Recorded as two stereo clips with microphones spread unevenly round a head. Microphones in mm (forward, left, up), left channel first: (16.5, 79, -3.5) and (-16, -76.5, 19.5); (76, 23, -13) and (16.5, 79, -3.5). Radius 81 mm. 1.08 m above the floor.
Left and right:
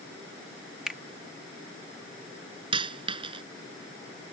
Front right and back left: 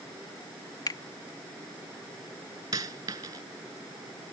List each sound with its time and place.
0.9 s a finger snap: 15° right
2.7 s a dropped coin: 160° right